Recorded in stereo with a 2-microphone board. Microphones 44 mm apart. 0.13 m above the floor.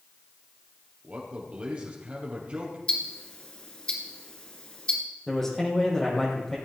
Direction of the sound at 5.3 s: 10° left (ahead or behind).